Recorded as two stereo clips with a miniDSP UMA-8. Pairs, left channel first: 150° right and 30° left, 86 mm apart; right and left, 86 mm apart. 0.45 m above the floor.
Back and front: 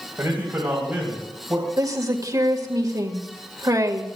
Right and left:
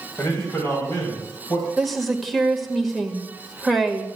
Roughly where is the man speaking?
Ahead right.